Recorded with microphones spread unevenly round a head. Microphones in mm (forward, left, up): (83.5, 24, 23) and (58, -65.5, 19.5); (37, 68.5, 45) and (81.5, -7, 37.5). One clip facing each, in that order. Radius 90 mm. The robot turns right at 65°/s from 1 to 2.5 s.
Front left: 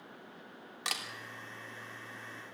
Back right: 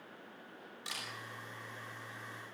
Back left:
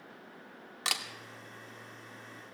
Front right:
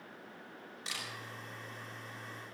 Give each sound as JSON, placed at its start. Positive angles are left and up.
{"t": 0.8, "sound": "a camera shutter", "azimuth_deg": 115, "distance_m": 2.5}